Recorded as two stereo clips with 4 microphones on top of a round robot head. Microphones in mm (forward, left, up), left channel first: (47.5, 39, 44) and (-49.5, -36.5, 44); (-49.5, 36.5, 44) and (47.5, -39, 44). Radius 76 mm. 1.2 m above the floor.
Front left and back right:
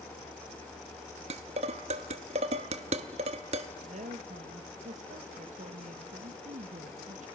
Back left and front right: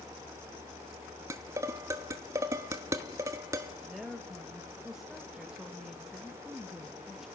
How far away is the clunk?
No clunk in this recording.